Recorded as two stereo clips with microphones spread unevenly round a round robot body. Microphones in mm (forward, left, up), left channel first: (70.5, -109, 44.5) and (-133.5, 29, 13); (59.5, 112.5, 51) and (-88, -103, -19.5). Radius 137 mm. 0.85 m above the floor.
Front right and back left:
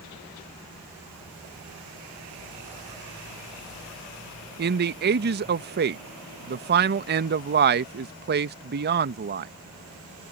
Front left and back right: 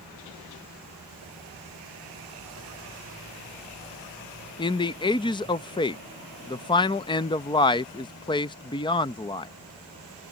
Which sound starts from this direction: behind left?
A man speaking, at 4.6 s.